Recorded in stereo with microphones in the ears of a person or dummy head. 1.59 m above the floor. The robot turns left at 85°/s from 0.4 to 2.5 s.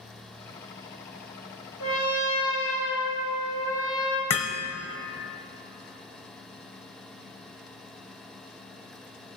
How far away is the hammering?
About 0.9 m.